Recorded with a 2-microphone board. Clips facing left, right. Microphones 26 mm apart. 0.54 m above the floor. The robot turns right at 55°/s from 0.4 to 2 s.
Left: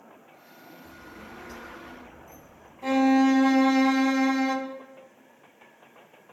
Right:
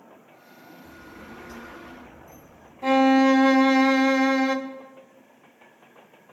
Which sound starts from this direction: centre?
A violin, at 2.8 s.